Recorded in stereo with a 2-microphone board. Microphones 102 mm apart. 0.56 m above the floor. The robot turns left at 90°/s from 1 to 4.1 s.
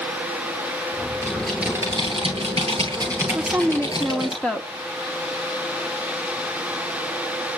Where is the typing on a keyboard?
25° left, 10 m; by 4.3 s 125° left, 10 m.